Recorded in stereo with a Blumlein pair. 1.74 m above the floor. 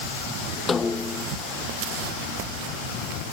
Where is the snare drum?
15° left.